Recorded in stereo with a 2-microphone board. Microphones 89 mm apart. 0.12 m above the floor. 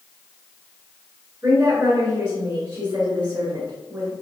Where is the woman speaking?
25° right (ahead or behind), 1.7 m.